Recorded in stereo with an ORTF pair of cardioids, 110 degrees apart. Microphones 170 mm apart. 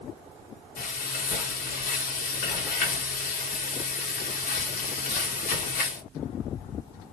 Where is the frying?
60° left, 2.0 m.